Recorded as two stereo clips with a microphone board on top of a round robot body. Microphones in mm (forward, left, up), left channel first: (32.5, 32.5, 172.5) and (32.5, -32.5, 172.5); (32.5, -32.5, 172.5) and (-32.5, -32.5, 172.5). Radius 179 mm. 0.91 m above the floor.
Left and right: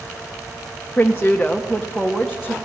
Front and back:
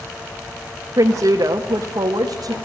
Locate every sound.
1.0 s a woman speaking: 160° left, 1.6 m; by 2.5 s 170° right, 2 m